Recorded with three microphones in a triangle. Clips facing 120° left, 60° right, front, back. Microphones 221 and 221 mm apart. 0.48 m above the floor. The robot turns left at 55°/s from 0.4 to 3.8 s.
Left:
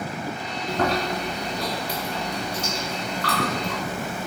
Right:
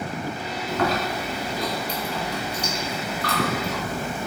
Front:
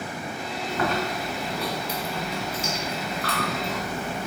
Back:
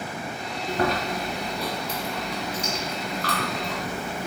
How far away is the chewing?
About 1.3 m.